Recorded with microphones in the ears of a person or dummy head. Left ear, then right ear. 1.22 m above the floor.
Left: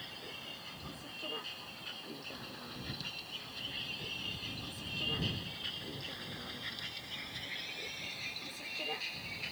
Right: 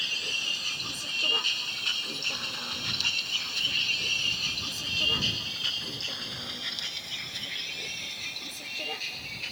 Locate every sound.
0.0 s a vehicle: 80° right; by 9.5 s 5° right (ahead or behind)